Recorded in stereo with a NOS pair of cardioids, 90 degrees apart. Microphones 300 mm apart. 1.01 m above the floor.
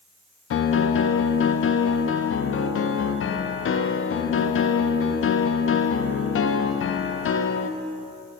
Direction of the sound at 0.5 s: 45° left.